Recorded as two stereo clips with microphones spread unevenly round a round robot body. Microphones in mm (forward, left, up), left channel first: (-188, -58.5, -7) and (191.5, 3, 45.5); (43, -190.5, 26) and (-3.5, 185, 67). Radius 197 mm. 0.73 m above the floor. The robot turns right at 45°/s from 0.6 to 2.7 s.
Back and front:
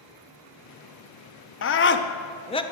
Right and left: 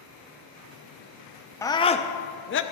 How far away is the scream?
About 0.7 m.